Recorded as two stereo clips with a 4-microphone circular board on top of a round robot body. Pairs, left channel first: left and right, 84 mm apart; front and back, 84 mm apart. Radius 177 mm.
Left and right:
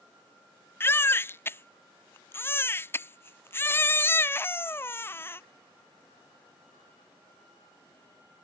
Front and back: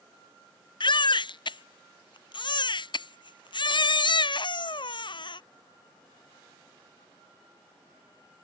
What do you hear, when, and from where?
0.8 s a baby crying: 25° left